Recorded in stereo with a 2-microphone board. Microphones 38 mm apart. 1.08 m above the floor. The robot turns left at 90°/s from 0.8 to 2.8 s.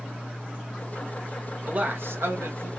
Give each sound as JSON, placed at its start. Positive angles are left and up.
{"t": 1.6, "sound": "a man speaking", "azimuth_deg": -30, "distance_m": 1.0}